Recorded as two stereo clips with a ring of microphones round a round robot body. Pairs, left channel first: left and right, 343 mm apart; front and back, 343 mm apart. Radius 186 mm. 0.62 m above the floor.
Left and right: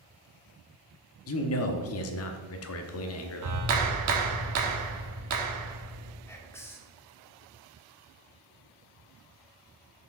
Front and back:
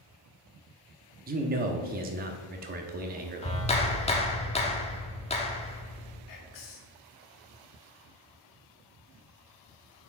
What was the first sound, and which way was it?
A man speaking, 125° left.